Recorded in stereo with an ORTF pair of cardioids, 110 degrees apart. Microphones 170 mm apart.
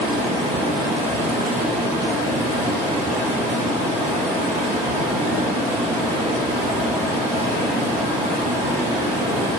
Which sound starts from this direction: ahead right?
Running water, at 0.0 s.